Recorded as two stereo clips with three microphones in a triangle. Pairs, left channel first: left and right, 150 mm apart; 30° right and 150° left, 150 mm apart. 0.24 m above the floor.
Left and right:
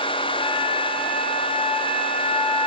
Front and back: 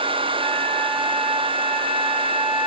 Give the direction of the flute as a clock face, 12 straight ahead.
8 o'clock.